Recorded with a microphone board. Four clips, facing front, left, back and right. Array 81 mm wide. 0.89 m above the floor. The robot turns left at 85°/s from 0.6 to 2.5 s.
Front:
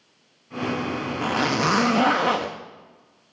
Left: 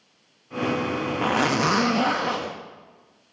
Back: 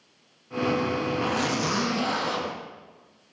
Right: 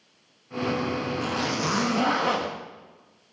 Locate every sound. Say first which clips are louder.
1.2 s a zipper: left 10 dB, front 4 dB; 85° left, 1.1 m; by 2.5 s 25° right, 1.1 m